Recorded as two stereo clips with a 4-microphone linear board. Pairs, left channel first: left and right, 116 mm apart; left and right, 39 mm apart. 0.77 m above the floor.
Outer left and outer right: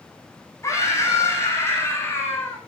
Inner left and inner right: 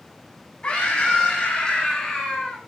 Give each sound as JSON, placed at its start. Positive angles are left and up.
{"t": 0.6, "sound": "a scream", "side_deg": 30, "distance_m": 7.5}